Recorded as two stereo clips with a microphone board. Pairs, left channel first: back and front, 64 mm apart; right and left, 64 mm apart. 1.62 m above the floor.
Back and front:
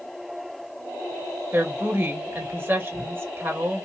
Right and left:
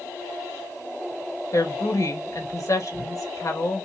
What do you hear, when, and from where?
1.5 s a woman speaking: 55° right, 2.5 m